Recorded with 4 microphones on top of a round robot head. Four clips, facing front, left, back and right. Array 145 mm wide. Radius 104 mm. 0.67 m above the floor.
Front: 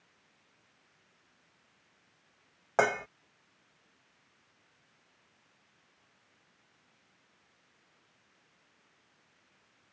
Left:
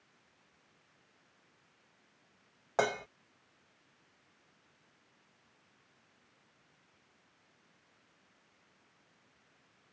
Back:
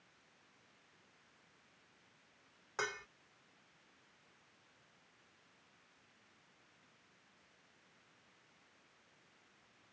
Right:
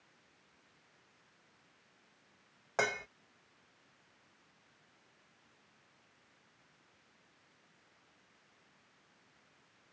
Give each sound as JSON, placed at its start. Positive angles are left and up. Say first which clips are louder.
{"t": 2.8, "sound": "dishes clattering", "louder": "left 4 dB, front 14 dB", "azimuth_deg": 25}